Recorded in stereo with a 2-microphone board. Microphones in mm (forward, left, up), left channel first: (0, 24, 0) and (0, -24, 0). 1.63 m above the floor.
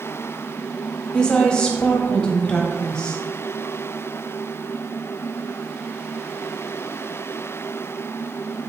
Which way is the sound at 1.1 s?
20° left (ahead or behind).